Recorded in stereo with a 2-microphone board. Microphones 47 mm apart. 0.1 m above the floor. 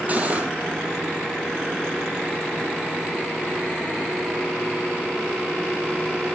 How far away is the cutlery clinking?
About 2 m.